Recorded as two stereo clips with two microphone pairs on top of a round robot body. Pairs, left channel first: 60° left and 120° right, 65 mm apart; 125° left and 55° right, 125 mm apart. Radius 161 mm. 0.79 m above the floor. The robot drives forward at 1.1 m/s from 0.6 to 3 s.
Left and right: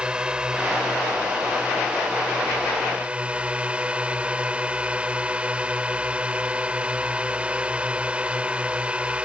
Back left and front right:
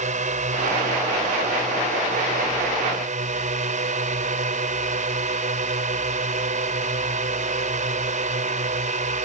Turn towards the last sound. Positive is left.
turn(degrees=-50)